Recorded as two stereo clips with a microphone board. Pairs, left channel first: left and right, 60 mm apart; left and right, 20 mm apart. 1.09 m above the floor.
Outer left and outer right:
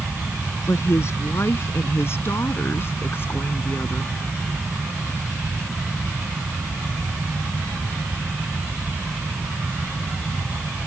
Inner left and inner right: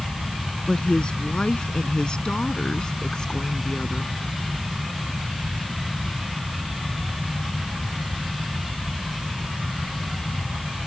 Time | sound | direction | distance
0.7 | a woman speaking | 50° left (ahead or behind) | ?